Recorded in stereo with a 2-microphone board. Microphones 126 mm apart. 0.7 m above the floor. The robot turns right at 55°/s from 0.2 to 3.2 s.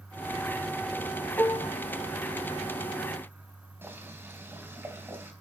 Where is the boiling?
20° right (ahead or behind), 3.5 m.